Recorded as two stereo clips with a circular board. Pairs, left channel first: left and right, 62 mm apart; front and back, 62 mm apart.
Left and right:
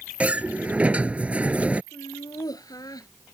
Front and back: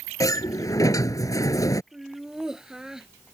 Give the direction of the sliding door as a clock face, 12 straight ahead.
1 o'clock.